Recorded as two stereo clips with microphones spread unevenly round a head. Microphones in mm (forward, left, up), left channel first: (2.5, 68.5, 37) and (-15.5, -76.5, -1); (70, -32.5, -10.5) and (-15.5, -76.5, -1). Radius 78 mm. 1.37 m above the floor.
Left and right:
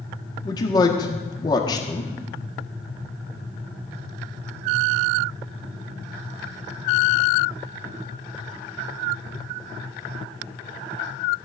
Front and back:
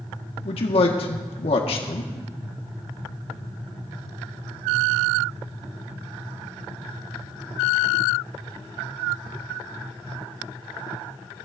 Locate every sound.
0.5 s a man speaking: 15° left, 1.5 m